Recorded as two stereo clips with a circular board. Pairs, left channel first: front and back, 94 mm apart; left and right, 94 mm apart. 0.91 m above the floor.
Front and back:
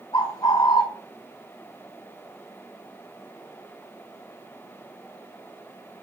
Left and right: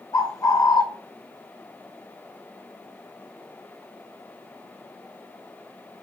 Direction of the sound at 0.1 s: 40° left.